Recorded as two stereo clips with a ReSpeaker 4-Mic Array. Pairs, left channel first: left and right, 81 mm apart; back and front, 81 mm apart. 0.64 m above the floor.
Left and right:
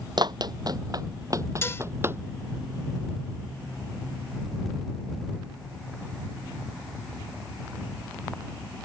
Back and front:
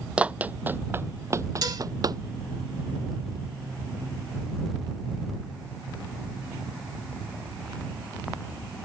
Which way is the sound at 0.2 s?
75° right.